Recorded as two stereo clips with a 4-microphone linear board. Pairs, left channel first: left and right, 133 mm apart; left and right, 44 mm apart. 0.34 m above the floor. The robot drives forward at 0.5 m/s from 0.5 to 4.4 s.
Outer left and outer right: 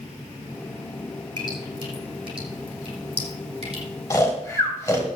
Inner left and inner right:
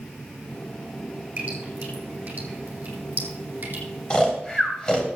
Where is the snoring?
25° left (ahead or behind), 2 m.